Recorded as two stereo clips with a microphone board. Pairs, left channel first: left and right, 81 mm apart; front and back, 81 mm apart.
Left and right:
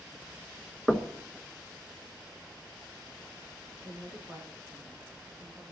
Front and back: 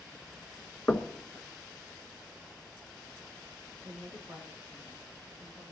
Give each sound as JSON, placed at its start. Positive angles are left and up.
{"t": 0.9, "sound": "knocking", "azimuth_deg": -5, "distance_m": 1.0}
{"t": 3.8, "sound": "a woman speaking", "azimuth_deg": -135, "distance_m": 7.0}